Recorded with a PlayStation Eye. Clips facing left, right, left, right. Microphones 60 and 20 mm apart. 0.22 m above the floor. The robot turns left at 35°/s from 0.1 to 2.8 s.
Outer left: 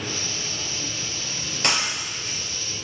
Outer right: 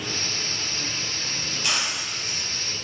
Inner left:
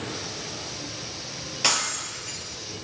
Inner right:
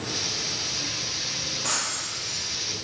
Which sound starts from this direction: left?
Breaking glass, at 1.6 s.